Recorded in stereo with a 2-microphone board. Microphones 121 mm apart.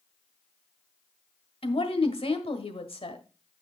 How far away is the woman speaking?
About 1.4 m.